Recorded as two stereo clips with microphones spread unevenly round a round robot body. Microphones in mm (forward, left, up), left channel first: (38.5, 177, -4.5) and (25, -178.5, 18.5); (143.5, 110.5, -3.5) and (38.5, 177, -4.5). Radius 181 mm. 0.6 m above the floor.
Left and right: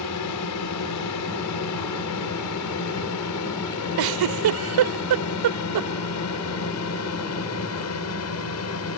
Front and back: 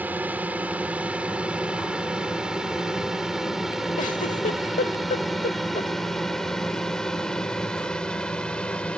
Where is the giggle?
70° right.